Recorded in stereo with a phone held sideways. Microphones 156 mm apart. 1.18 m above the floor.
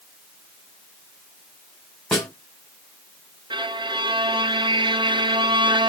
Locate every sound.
2.1 s a snare drum: centre (ahead or behind), 3 m
3.5 s a violin: 30° right (ahead or behind), 0.5 m